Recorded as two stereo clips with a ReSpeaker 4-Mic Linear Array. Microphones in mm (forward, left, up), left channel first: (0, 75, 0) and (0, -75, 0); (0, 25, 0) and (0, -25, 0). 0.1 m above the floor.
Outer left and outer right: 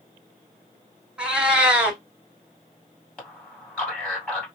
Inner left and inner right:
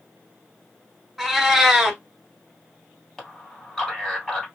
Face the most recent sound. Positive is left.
turn(degrees=5)  # may be behind; listen again after turning